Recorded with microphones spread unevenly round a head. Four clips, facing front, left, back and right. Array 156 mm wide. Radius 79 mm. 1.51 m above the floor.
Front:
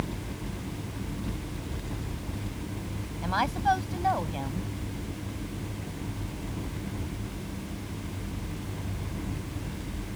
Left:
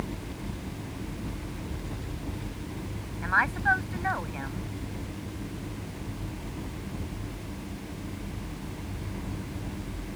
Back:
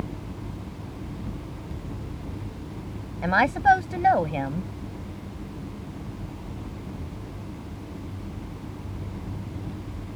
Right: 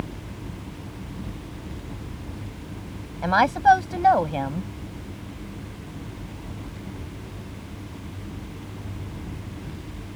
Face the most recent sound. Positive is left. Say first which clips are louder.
# right 9 dB, back 7 dB
turn(degrees=-130)